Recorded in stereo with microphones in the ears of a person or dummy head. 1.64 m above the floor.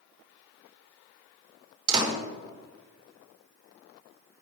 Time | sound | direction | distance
1.9 | a door slam | 25° right (ahead or behind) | 4.5 m